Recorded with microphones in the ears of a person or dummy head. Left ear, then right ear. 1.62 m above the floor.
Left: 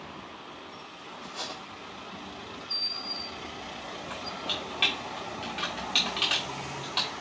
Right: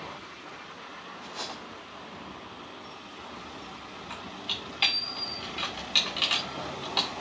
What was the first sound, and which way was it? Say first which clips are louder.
Cutlery clinking: left 1 dB; centre (ahead or behind).